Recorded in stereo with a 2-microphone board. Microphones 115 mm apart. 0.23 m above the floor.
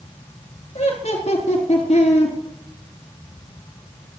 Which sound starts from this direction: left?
Laughter, at 0.8 s.